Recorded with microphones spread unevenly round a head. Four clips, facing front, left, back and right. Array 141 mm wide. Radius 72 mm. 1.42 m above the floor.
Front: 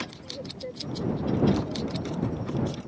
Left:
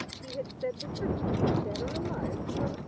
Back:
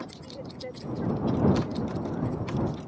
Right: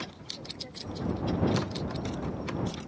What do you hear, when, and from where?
0.2 s a woman speaking: 95° left